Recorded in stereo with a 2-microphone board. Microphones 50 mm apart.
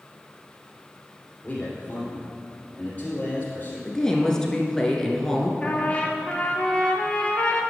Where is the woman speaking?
15° left (ahead or behind), 1.1 m.